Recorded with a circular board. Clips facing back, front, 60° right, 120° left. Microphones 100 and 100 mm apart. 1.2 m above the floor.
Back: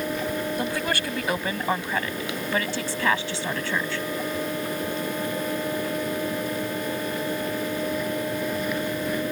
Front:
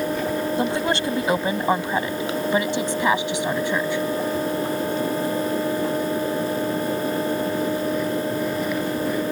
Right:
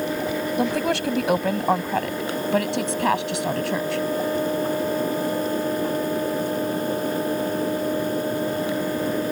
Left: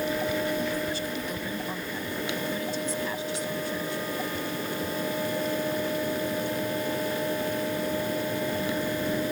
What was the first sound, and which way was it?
A woman speaking, 65° right.